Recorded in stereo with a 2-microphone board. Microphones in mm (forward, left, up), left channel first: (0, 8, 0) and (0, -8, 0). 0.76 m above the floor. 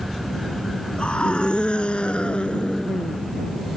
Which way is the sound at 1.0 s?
80° left.